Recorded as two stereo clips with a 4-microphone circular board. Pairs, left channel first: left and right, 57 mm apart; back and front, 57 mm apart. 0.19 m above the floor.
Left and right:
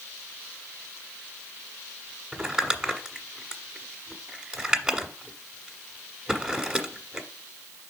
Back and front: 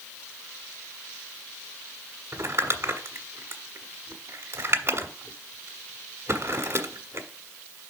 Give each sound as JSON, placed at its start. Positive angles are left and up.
{"t": 2.3, "sound": "crumpling", "azimuth_deg": -20, "distance_m": 1.3}